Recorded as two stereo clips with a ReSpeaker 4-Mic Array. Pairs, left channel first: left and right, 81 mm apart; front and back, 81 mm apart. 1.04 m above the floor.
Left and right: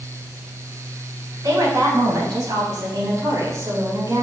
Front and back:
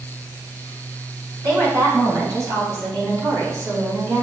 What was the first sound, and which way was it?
A woman speaking, 140° right.